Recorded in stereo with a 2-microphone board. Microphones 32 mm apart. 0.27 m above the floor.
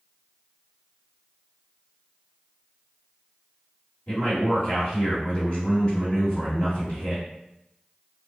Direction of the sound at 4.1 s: 40° left (ahead or behind).